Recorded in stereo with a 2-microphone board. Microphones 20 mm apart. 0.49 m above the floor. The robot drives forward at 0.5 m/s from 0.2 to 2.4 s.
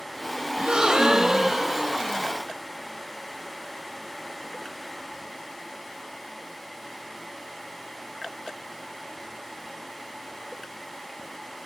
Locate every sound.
0.6 s a gasp: 60° right (ahead or behind), 0.8 m; by 2.3 s 30° right (ahead or behind), 1.4 m